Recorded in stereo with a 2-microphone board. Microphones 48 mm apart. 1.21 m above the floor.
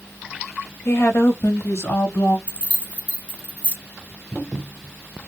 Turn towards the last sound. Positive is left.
turn(degrees=-25)  # may be behind; listen again after turning